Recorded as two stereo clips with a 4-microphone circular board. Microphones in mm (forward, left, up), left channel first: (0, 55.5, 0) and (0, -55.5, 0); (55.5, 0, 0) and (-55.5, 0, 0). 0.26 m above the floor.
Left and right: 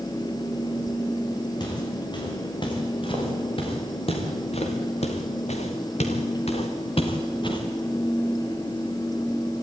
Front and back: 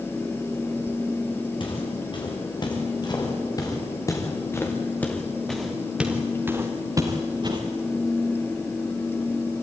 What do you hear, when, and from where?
1.6 s footsteps: 40° left, 6.5 m; by 7.6 s 135° left, 3.5 m